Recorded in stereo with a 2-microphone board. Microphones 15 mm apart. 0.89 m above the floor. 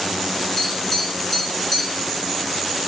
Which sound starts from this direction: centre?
Tapping, at 0.6 s.